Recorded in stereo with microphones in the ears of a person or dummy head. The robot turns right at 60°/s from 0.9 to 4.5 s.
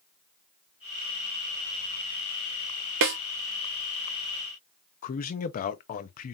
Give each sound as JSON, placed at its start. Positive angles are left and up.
{"t": 3.0, "sound": "a snare drum", "side_deg": -55, "distance_m": 0.6}
{"t": 5.0, "sound": "a man speaking", "side_deg": 35, "distance_m": 0.6}